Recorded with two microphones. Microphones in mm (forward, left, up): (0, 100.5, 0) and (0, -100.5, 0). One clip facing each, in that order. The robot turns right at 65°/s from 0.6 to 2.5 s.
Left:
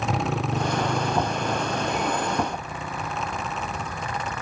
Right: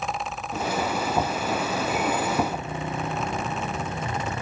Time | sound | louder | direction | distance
0.0 | a motorcycle | left 6 dB | 80° left | ?